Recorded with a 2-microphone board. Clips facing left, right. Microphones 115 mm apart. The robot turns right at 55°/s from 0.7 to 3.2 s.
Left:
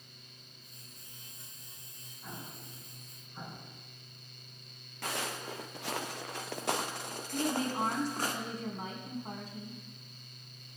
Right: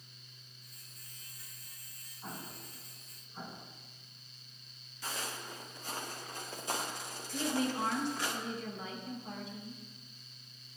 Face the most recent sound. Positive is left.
turn(degrees=45)  # may be behind; listen again after turning